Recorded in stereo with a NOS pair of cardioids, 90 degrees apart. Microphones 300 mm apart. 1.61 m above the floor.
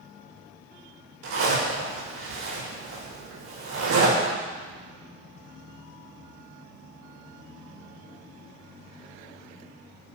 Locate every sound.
1.2 s a zipper: 60° right, 5 m